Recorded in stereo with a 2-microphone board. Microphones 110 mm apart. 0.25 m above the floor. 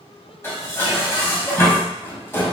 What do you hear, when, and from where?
0.4 s dishes clattering: 25° left (ahead or behind), 0.8 m